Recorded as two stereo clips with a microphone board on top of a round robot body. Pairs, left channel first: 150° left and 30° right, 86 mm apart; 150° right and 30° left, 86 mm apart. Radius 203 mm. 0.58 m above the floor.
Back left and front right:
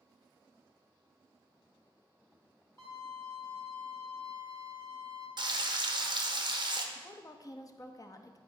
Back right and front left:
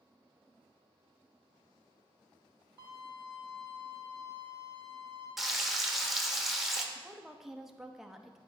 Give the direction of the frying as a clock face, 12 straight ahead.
2 o'clock.